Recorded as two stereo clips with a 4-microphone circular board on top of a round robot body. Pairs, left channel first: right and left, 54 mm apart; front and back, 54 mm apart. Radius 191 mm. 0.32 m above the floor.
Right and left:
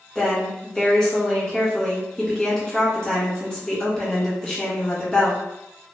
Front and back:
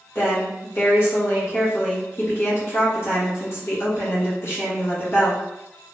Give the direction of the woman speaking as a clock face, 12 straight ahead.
1 o'clock.